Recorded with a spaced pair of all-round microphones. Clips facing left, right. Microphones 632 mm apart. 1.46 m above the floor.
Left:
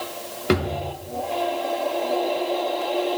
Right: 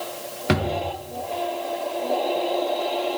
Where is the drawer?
20° right (ahead or behind), 0.8 m.